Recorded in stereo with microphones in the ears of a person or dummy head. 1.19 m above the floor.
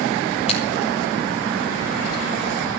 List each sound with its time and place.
0.5 s scissors: 30° left (ahead or behind), 2.5 m